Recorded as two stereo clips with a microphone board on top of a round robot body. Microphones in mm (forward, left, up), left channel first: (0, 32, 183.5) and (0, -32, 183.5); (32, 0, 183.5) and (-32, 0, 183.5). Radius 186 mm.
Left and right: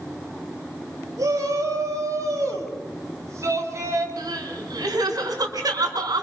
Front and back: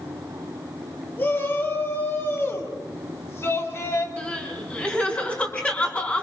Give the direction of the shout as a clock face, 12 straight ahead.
2 o'clock.